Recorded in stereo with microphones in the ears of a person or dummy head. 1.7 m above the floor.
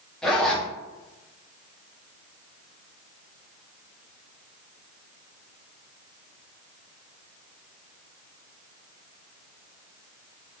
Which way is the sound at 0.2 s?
5° left (ahead or behind).